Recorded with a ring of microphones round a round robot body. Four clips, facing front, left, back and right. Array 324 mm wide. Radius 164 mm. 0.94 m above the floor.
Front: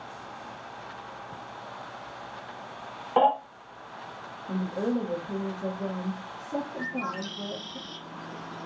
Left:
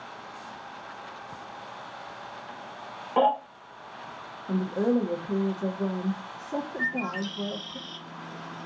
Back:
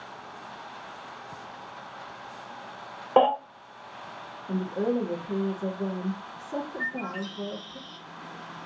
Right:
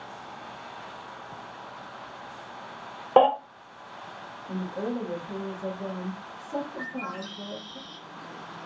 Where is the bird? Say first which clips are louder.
Left 4 dB, front 1 dB; 20° left, 0.5 m.